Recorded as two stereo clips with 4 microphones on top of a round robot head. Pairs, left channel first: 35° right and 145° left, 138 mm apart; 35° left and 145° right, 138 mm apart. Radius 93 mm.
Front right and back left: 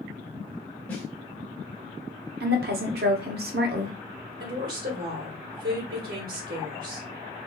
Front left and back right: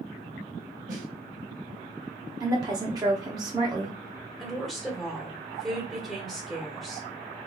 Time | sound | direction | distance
0.9 | a snare drum | 110° right | 1.1 m
2.4 | a woman speaking | 150° left | 0.7 m
4.4 | a woman speaking | 125° left | 1.3 m